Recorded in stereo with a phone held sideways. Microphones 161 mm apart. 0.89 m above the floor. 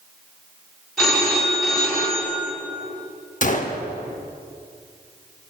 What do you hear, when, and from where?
1.0 s a phone ringing: 5° left (ahead or behind), 2.5 m
3.4 s a gunshot: 50° left (ahead or behind), 0.7 m